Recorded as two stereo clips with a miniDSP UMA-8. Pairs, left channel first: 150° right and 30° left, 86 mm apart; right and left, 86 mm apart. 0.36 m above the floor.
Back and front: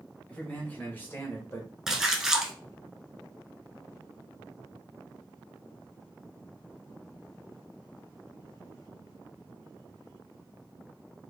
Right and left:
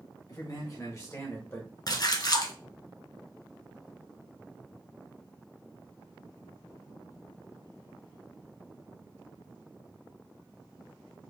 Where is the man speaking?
80° right, 1.3 m; by 1.7 s 135° right, 1.1 m.